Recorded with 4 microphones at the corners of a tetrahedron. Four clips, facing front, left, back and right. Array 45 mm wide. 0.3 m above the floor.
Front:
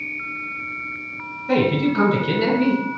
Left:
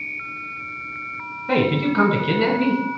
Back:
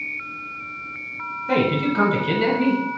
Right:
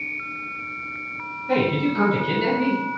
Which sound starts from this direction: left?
A man speaking, at 1.5 s.